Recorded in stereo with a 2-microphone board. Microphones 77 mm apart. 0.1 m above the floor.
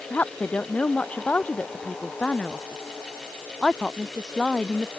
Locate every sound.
0.1 s a woman speaking: 25° left (ahead or behind); by 4.9 s 10° left (ahead or behind)